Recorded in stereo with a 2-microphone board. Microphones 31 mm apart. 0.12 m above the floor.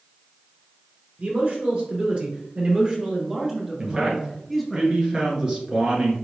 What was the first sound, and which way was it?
A man speaking, 40° right (ahead or behind).